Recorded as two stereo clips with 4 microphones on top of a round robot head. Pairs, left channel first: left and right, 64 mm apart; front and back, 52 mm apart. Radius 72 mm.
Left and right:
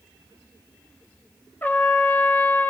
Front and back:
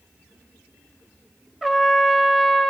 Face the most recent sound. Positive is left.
turn(degrees=95)